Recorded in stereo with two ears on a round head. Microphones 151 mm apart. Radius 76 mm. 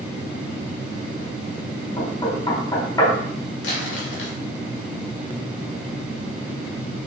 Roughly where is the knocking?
Left.